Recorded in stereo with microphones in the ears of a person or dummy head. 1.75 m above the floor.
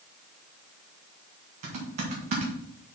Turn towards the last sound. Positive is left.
turn(degrees=-40)  # may be behind; listen again after turning